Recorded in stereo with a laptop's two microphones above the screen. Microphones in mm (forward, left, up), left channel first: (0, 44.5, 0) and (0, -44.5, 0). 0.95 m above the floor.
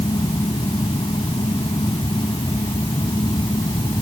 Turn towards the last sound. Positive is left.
turn(degrees=80)